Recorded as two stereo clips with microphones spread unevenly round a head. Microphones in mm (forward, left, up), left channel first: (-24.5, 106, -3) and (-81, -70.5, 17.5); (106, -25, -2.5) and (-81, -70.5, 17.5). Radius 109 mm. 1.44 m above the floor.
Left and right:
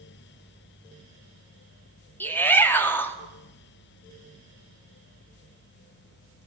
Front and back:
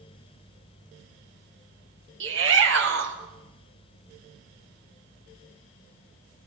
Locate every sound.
2.2 s a shout: 150° left, 3 m